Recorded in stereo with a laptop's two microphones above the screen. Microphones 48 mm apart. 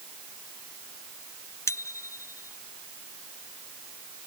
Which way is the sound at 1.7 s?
85° left.